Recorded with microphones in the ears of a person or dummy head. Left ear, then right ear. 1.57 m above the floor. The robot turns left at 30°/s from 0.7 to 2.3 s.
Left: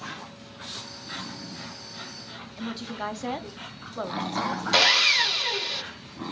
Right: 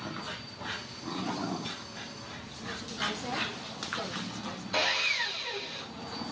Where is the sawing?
40° left (ahead or behind), 0.6 m.